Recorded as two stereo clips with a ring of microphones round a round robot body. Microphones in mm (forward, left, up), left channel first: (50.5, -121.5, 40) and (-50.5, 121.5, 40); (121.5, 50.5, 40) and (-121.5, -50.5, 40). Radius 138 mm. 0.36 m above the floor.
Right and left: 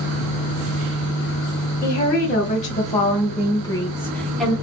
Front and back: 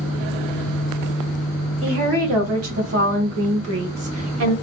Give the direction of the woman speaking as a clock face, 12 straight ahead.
4 o'clock.